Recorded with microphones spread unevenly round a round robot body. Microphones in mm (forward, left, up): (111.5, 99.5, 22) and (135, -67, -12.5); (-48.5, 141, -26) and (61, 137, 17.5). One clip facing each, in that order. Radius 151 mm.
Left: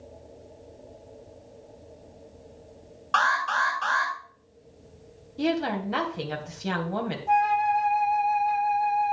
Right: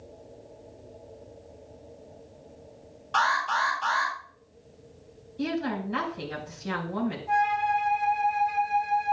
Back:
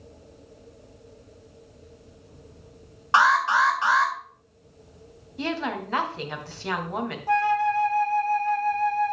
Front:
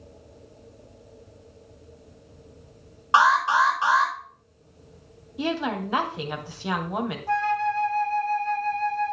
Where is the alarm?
85° left, 7 m.